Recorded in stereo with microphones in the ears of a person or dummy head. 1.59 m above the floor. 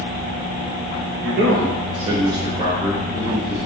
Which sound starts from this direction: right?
A man speaking, at 1.2 s.